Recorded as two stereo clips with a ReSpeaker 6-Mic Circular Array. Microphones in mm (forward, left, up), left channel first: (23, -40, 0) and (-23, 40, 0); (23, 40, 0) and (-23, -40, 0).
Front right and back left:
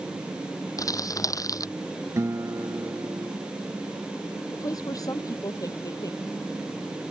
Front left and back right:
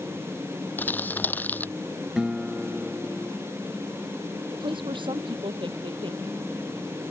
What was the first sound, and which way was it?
Crumpling, 10° right.